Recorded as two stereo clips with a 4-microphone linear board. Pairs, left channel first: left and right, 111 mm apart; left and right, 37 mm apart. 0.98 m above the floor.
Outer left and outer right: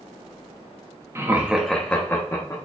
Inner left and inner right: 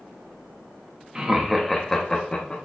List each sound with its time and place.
1.1 s laughter: 20° right (ahead or behind), 0.6 m; by 2.6 s 35° left (ahead or behind), 0.8 m